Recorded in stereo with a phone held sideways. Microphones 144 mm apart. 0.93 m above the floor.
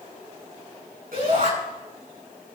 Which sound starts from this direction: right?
A shout, at 1.1 s.